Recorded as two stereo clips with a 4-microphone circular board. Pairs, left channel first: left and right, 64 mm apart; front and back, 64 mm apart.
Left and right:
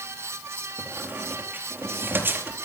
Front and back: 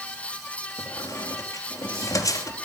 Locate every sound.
0.8 s a squeak: 30° right, 2.5 m